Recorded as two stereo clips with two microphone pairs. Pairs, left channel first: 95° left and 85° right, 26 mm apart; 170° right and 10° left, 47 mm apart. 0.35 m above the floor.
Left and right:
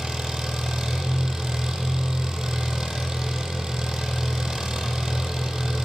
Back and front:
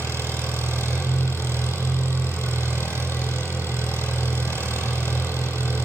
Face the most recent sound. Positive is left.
turn(degrees=-150)